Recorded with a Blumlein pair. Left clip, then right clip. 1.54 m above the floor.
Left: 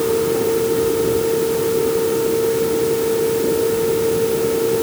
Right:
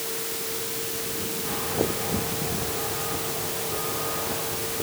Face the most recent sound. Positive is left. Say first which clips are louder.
# left 15 dB
turn(degrees=40)